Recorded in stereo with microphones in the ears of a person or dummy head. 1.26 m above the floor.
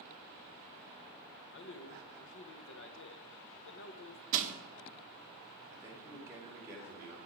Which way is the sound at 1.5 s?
65° left (ahead or behind).